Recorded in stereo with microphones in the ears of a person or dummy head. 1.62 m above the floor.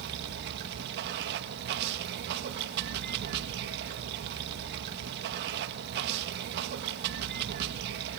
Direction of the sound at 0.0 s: 55° right (ahead or behind).